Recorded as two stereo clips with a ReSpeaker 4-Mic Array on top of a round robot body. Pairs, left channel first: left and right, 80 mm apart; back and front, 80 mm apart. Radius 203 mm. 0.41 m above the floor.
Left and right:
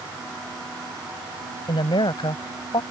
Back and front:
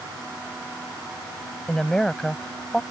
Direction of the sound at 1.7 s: 100° left.